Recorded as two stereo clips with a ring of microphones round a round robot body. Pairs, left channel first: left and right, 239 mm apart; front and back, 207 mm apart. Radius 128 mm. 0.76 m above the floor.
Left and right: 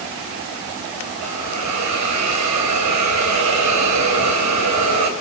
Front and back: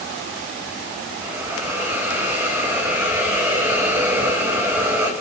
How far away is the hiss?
About 3.5 m.